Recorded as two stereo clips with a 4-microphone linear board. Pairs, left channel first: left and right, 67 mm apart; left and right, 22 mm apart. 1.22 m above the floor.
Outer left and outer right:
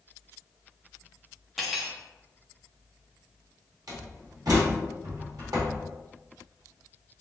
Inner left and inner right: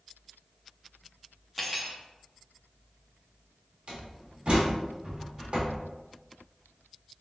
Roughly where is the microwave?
No microwave in this recording.